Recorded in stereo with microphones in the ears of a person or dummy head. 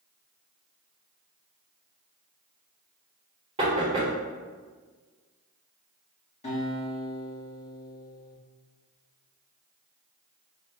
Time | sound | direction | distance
3.6 | knocking | 30° right (ahead or behind) | 1.2 m
6.4 | a guitar | 30° left (ahead or behind) | 1.7 m